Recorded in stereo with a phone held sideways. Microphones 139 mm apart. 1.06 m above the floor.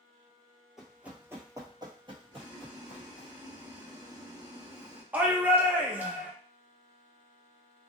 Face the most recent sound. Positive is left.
turn(degrees=-10)  # may be behind; listen again after turning